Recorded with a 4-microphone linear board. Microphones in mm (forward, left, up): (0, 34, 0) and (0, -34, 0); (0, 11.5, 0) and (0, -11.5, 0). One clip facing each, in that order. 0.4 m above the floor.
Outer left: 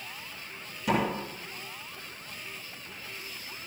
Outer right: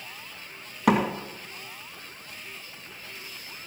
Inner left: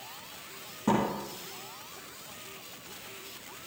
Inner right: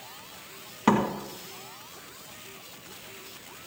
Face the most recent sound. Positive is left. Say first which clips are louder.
# outer right 5 dB, inner right 4 dB
turn(degrees=-75)  # may be behind; listen again after turning